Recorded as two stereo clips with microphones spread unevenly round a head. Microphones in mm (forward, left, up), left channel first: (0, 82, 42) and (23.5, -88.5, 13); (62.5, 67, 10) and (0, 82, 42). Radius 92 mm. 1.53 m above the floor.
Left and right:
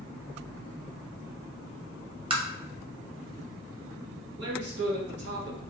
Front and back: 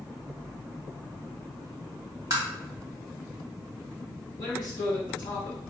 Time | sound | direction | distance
2.3 | tapping | 145° right | 0.6 m
4.4 | a man speaking | 55° right | 1.3 m